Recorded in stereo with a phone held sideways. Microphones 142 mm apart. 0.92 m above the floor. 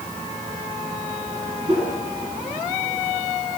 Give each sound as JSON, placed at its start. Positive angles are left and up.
{"t": 1.7, "sound": "a whoosh", "side_deg": -45, "distance_m": 7.0}